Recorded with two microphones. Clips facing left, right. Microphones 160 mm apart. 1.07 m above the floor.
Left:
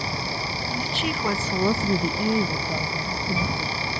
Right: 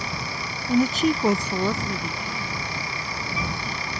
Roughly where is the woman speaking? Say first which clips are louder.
Right 11 dB; right.